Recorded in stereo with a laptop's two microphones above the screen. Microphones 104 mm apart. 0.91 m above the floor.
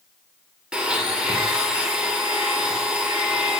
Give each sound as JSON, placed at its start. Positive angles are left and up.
{"t": 0.7, "sound": "a blender", "side_deg": -10, "distance_m": 1.7}